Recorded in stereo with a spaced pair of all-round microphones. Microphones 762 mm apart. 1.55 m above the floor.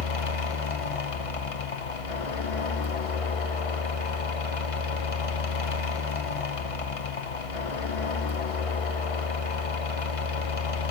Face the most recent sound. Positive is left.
turn(degrees=45)  # may be behind; listen again after turning